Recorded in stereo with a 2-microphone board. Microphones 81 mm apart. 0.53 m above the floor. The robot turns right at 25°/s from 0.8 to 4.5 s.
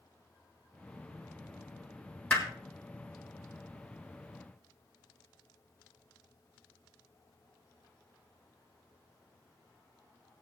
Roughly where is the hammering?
Centre.